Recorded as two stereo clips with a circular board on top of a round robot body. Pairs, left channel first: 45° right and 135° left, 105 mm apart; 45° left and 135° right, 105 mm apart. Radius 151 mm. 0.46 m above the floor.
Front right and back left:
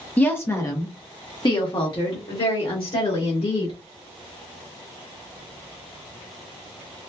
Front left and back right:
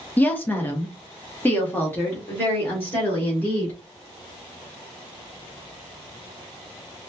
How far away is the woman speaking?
About 1.1 m.